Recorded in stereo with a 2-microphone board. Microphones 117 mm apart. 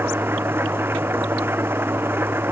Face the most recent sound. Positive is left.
turn(degrees=-20)  # may be behind; listen again after turning